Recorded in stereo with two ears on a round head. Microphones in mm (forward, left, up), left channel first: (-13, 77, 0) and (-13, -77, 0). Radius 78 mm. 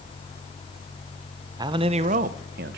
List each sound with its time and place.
1.6 s a man speaking: 25° right (ahead or behind), 0.7 m; by 2.8 s 65° right (ahead or behind), 0.8 m